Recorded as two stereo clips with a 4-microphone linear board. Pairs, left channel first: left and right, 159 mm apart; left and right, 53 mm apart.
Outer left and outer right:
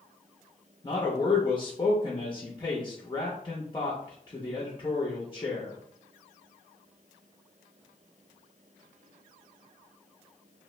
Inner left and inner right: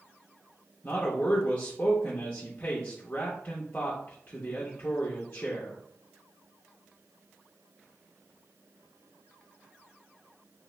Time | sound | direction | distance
0.8 | a man speaking | 30° left (ahead or behind) | 0.6 m